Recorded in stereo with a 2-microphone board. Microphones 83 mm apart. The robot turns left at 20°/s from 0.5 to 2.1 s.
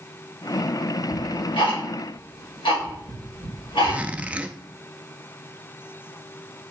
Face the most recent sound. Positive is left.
turn(degrees=-15)  # may be behind; listen again after turning